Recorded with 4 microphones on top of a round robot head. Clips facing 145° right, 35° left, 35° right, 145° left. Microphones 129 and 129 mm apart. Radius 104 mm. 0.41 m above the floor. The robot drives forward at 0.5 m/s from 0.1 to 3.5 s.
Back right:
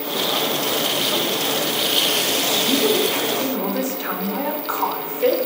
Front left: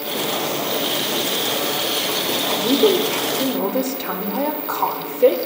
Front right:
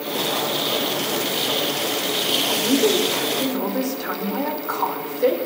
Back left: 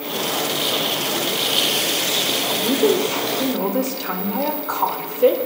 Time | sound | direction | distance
2.5 | a woman speaking | 60° left | 1.9 m